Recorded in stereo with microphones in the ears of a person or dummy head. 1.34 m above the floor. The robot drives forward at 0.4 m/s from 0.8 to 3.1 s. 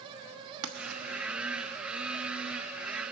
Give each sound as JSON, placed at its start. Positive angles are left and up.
{"t": 0.6, "sound": "writing", "side_deg": -65, "distance_m": 1.3}